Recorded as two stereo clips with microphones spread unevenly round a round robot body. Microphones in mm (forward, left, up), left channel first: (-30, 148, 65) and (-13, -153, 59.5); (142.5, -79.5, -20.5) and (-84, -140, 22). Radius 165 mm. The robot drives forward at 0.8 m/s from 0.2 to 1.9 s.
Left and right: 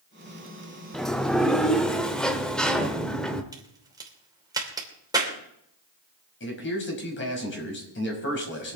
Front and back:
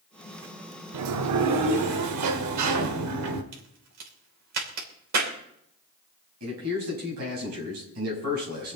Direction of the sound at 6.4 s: 145° left.